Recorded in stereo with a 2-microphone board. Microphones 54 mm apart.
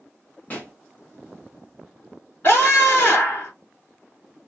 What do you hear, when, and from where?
0.5 s a pop: 30° left (ahead or behind), 2.0 m
2.4 s a scream: 45° left (ahead or behind), 2.5 m